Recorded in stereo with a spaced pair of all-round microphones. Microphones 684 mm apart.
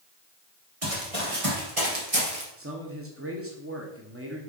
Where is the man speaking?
20° right (ahead or behind), 1.0 m.